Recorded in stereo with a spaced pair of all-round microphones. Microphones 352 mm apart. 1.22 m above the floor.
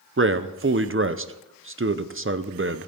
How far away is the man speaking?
About 0.6 m.